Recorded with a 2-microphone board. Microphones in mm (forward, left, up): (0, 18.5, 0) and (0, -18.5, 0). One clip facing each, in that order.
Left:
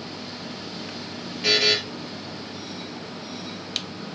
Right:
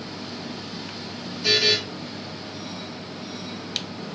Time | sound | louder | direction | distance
1.4 | a buzzer | even | 45° left (ahead or behind) | 2 m